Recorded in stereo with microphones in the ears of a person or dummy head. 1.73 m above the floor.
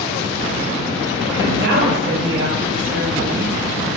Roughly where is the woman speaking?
Right.